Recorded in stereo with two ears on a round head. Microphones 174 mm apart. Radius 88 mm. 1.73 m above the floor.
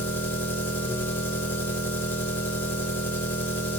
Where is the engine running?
10° left (ahead or behind), 2.5 m.